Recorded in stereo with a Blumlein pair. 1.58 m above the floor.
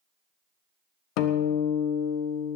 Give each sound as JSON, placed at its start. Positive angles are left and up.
{"t": 1.2, "sound": "a guitar", "azimuth_deg": 40, "distance_m": 0.8}